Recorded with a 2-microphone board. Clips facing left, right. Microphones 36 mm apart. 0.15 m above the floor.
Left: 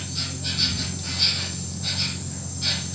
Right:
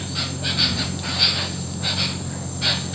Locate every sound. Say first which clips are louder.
0.0 s an insect: right 5 dB; 45° right (ahead or behind), 0.8 m